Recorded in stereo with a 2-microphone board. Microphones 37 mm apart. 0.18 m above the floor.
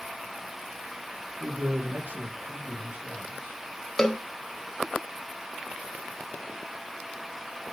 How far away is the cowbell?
About 0.7 m.